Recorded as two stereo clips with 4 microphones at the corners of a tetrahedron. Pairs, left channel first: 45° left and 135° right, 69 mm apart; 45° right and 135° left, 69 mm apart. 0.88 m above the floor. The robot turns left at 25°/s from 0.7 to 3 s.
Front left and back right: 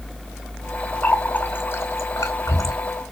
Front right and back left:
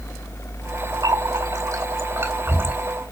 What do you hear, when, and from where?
1.0 s a running tap: 115° left, 2 m; by 2.8 s 70° left, 2 m